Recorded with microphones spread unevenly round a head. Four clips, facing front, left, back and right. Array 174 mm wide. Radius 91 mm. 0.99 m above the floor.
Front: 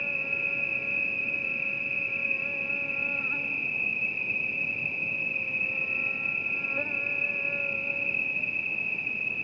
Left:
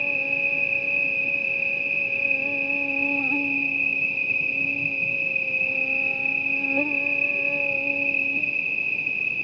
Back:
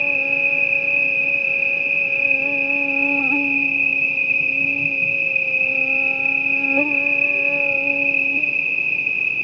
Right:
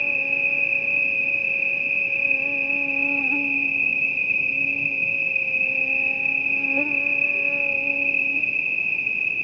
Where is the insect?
Straight behind.